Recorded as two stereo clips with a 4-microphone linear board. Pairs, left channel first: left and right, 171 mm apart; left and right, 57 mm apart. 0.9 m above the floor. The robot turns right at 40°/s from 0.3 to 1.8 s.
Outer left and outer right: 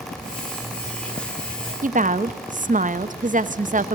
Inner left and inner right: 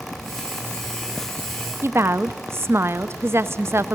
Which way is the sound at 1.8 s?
50° right (ahead or behind).